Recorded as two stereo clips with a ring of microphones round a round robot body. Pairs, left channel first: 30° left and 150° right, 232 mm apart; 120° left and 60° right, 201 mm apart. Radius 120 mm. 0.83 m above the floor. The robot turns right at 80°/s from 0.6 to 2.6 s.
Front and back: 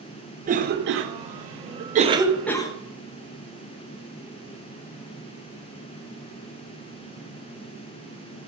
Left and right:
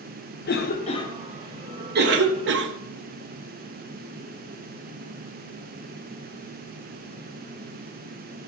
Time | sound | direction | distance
0.5 | a cough | 155° left | 0.6 m